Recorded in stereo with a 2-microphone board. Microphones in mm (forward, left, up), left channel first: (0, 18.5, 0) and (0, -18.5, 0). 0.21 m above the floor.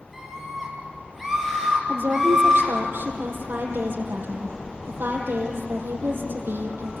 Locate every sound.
0.1 s a scream: 5° left (ahead or behind), 6 m
1.9 s a woman speaking: 65° right (ahead or behind), 6 m